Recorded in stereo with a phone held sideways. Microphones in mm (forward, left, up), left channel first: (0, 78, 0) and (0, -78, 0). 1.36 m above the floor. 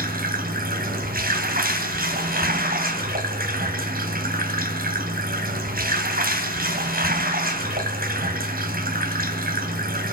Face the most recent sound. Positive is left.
turn(degrees=-70)  # may be behind; listen again after turning